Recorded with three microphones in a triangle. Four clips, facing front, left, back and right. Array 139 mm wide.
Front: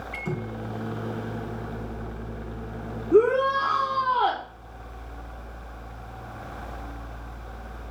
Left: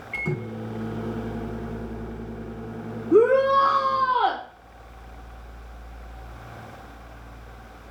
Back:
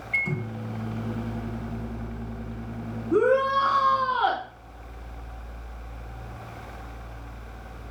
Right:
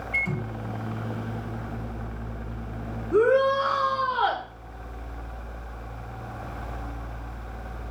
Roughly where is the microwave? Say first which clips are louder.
Left 3 dB, back 2 dB; left.